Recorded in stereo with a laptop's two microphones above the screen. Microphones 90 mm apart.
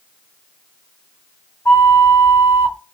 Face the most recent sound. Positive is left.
turn(degrees=30)  # may be behind; listen again after turning